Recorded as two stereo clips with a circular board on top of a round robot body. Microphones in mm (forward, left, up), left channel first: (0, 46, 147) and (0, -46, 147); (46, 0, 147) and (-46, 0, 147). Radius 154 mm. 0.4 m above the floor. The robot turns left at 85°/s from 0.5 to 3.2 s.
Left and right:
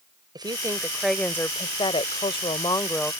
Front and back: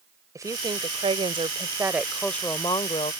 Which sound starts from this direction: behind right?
A woman speaking, at 0.3 s.